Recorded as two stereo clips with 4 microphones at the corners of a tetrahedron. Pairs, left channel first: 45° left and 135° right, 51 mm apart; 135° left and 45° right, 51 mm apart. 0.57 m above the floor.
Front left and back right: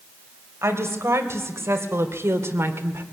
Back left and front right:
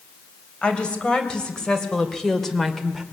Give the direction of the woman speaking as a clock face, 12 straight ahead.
5 o'clock.